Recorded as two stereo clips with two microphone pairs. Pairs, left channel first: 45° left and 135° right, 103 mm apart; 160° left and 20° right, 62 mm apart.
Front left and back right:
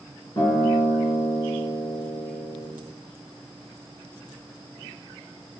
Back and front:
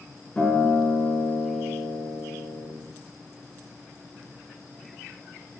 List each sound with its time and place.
0.4 s a guitar: 85° left, 4.5 m